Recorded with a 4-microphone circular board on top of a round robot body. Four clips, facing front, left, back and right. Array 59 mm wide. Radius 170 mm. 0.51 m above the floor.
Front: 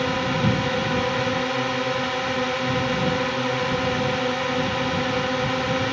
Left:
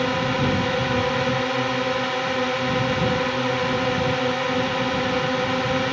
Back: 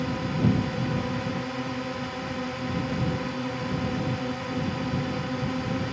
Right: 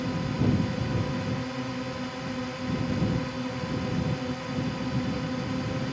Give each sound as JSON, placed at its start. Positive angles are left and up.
{"t": 0.0, "sound": "a drone", "azimuth_deg": 55}